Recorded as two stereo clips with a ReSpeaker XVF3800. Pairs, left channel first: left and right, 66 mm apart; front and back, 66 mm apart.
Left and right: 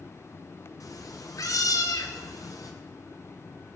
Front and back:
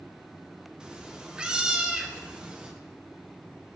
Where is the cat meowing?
105° left, 0.5 m.